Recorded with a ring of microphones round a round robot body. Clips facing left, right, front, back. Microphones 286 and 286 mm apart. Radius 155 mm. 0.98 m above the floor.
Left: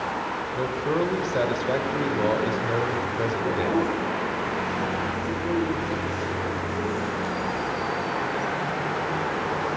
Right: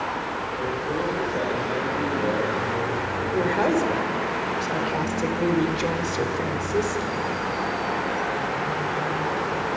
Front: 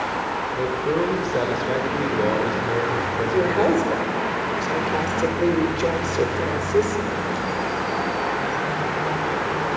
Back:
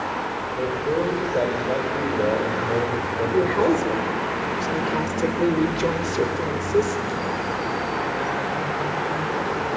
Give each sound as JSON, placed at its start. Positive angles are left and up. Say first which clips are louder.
{"t": 0.5, "sound": "a man speaking", "louder": "left 3 dB, front 1 dB", "azimuth_deg": 70, "distance_m": 4.0}
{"t": 3.3, "sound": "a woman speaking", "louder": "right 4 dB, even", "azimuth_deg": -105, "distance_m": 4.5}